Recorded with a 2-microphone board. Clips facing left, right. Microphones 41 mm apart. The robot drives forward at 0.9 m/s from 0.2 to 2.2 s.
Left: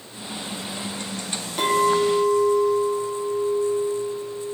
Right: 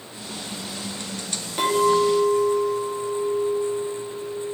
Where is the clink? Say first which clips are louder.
Even; 5° right (ahead or behind), 1.1 m.